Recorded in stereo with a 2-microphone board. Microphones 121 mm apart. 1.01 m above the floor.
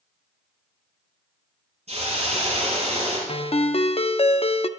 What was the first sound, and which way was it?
A hiss, 60° right (ahead or behind).